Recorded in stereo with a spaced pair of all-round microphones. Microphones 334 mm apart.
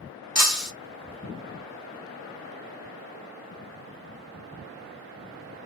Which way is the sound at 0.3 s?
45° left (ahead or behind).